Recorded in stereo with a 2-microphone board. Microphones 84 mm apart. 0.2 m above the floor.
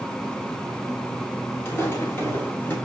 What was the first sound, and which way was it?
Footsteps, 30° left (ahead or behind).